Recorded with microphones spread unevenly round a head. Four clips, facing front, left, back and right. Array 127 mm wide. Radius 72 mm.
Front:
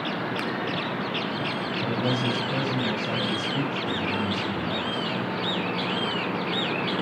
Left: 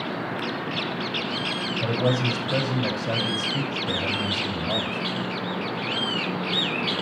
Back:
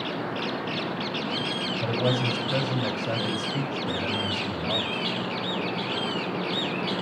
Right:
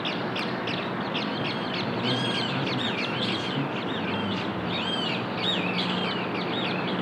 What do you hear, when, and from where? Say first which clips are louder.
1.8 s a man speaking: left 7 dB, back 1 dB; 125° left, 7.5 m